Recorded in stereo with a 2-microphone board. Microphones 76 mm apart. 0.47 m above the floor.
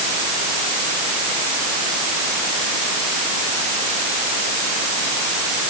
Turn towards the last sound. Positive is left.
No sound to turn to.